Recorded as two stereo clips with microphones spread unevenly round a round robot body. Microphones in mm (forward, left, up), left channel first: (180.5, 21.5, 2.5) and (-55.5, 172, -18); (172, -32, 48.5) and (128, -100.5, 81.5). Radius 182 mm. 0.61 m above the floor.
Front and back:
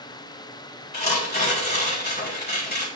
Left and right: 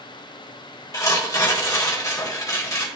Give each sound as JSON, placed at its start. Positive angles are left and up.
{"t": 0.9, "sound": "tearing paper", "azimuth_deg": 20, "distance_m": 4.0}